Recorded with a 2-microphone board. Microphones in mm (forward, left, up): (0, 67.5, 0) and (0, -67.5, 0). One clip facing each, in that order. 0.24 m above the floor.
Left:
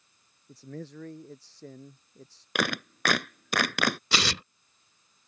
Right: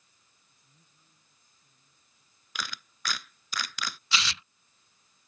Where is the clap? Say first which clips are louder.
Left 12 dB; 65° left (ahead or behind).